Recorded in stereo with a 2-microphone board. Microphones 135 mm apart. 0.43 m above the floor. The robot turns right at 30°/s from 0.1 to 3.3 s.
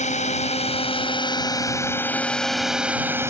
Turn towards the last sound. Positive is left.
turn(degrees=-160)